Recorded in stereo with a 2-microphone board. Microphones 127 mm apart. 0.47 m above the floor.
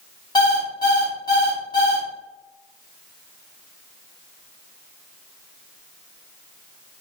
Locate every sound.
0.3 s an alarm clock: 30° left (ahead or behind), 1.7 m